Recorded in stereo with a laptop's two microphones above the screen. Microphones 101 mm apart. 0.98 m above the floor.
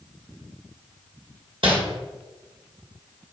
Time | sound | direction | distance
1.6 | crumpling | 60° right (ahead or behind) | 1.6 m